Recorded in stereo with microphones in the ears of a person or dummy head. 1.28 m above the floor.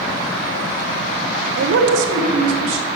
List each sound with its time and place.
1.6 s a man speaking: 75° right (ahead or behind), 0.9 m; by 2.9 s 85° right, 2.0 m